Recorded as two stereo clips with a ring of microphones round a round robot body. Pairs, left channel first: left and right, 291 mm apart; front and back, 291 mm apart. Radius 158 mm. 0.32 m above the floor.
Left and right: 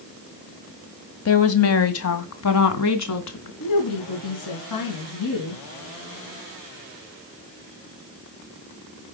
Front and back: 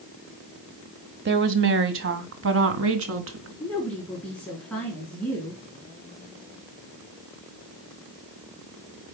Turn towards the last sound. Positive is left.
turn(degrees=85)